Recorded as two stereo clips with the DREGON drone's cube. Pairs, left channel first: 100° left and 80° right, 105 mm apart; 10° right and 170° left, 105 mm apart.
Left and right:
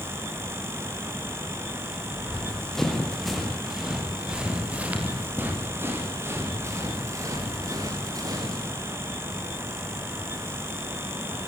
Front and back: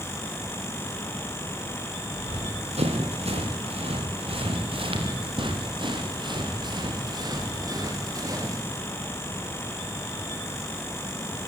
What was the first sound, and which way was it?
Running footsteps, straight behind.